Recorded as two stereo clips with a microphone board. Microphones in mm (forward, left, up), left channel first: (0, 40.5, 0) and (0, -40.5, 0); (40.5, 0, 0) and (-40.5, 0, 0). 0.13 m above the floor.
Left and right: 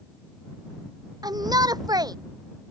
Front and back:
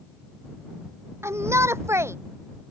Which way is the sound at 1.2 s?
125° right.